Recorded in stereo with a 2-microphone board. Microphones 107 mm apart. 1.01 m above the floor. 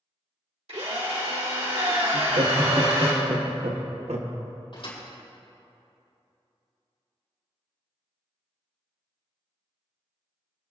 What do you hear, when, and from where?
0.7 s a drill: 75° right (ahead or behind), 3 m
2.1 s laughter: 75° right (ahead or behind), 1.3 m
4.7 s a thud: 50° left (ahead or behind), 4.5 m